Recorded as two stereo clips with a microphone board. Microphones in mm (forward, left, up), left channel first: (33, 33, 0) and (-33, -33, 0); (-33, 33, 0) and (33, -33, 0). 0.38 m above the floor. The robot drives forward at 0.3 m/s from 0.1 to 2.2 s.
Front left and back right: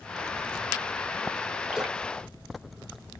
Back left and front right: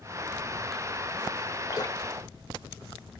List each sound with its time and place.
1.7 s dripping: 140° left, 0.7 m; by 2.0 s 150° left, 0.7 m